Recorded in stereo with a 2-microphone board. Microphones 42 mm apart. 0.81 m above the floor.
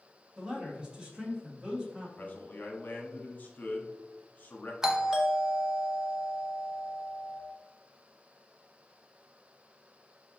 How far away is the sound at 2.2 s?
About 1.1 m.